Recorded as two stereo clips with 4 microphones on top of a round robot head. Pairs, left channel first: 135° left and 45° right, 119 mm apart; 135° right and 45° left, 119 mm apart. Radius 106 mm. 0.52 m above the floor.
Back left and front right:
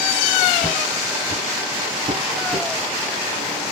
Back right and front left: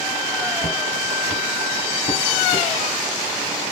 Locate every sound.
0.6 s footsteps: 110° right, 2.5 m; by 2.7 s 90° right, 3 m